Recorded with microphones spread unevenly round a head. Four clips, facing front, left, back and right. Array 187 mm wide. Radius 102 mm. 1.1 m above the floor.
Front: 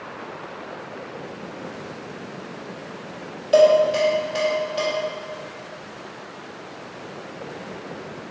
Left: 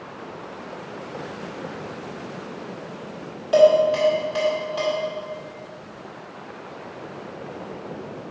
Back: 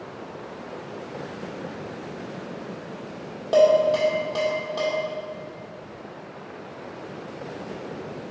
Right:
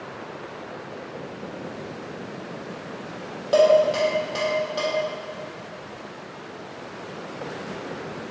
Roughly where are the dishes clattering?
Behind right.